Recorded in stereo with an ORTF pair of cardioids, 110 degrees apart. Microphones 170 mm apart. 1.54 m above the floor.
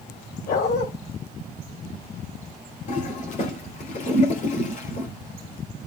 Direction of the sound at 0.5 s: 65° left.